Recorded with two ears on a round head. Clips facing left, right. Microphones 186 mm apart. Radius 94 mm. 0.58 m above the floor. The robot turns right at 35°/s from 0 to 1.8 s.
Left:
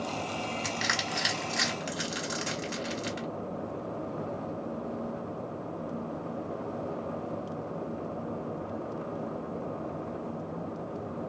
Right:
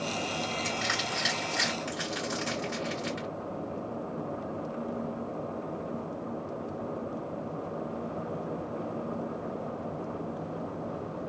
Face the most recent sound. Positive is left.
turn(degrees=35)  # may be behind; listen again after turning